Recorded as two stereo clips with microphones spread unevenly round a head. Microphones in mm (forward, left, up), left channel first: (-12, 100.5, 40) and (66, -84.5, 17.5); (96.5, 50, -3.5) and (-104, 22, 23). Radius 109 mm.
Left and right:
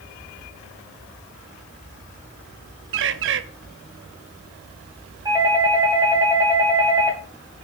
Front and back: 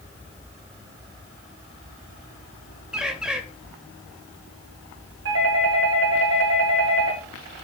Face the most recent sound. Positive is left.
turn(degrees=-140)